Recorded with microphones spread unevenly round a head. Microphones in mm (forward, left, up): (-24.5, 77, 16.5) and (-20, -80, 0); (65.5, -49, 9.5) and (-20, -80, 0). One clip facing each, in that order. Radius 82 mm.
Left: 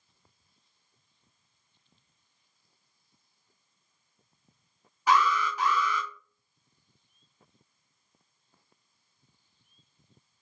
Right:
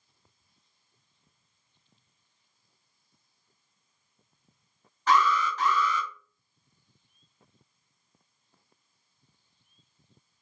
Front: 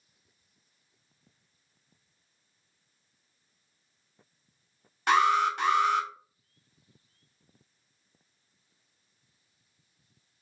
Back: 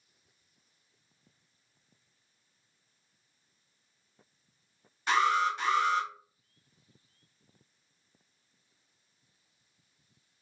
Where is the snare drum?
No snare drum in this recording.